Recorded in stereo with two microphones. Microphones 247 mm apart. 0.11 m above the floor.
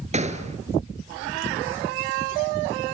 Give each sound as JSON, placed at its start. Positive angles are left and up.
{"t": 0.1, "sound": "a gunshot", "side_deg": -25, "distance_m": 1.8}